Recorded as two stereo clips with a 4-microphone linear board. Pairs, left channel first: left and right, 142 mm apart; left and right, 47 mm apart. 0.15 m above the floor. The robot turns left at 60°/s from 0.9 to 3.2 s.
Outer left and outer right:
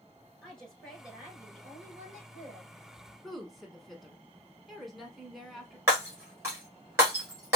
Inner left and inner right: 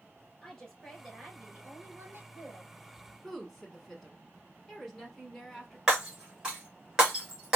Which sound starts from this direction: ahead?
A woman speaking, at 0.4 s.